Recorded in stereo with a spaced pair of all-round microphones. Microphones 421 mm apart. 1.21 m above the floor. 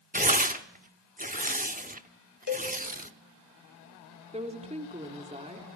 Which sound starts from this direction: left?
A cowbell, at 2.5 s.